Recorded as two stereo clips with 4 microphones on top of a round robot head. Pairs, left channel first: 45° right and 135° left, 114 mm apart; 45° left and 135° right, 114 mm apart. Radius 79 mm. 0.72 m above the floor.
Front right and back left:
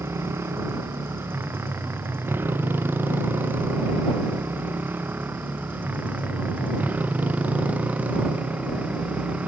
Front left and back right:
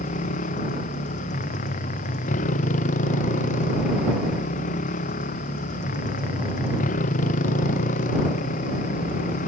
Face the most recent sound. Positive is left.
turn(degrees=55)